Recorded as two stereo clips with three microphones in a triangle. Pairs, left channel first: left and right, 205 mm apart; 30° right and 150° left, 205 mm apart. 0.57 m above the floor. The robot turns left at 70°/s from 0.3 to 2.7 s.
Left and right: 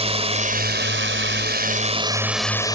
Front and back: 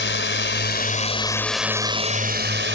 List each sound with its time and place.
0.0 s a drone: 30° right; by 2.8 s 160° left